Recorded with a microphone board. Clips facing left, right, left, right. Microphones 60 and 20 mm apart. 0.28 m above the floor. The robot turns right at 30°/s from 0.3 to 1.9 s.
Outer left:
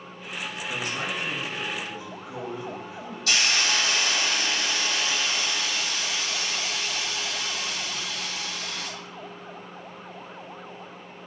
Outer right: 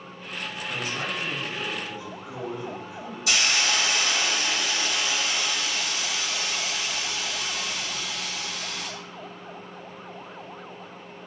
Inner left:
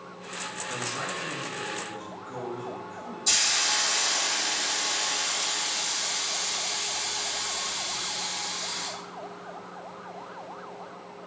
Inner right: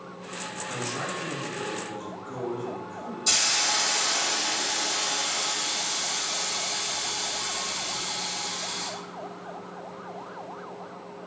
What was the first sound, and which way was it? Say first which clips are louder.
A man speaking: even, inner right 1 dB; 170° right.